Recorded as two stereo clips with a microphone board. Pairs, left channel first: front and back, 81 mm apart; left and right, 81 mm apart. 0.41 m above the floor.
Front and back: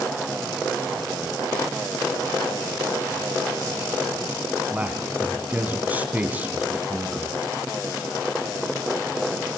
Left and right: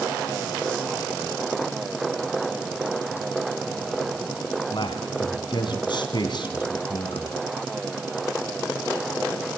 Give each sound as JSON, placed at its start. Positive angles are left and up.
{"t": 4.7, "sound": "a man speaking", "azimuth_deg": 110, "distance_m": 3.0}